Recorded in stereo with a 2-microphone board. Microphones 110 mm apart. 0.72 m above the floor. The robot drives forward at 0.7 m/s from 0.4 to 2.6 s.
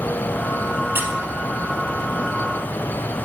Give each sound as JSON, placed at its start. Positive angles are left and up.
{"t": 0.9, "sound": "a squeak", "side_deg": -20, "distance_m": 0.6}